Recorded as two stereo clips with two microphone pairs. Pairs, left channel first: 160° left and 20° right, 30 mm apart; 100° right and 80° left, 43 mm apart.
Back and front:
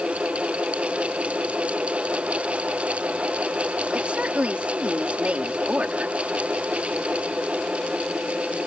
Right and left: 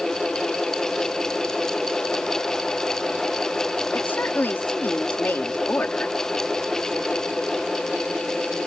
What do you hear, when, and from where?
3.9 s a woman speaking: 60° right